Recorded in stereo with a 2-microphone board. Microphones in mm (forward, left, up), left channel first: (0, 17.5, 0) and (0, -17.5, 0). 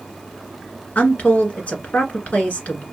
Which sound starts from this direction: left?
A woman speaking, at 0.9 s.